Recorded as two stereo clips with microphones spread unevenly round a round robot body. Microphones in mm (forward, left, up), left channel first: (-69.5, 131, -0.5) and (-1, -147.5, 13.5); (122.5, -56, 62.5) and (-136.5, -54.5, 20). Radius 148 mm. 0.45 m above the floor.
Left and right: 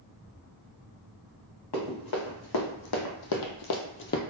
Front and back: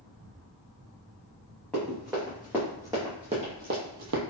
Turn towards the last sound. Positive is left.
turn(degrees=155)